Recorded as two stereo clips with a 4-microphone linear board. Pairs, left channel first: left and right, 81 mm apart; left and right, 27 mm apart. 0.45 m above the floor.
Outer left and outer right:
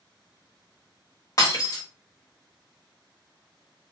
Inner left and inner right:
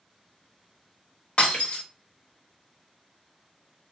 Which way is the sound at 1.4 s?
50° left (ahead or behind).